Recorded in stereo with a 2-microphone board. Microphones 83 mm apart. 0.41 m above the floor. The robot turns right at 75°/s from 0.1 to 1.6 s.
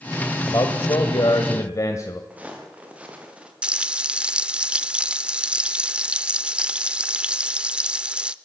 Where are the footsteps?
15° right (ahead or behind), 6 m.